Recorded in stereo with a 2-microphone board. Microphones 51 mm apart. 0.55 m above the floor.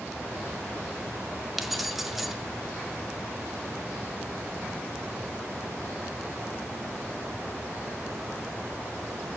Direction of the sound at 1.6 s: 5° right (ahead or behind).